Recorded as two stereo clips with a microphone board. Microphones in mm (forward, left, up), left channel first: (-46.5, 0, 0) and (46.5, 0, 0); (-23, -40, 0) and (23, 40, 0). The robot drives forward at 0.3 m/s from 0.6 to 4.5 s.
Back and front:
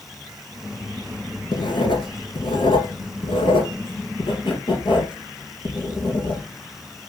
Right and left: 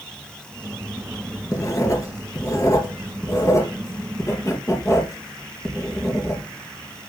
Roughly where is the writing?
Behind.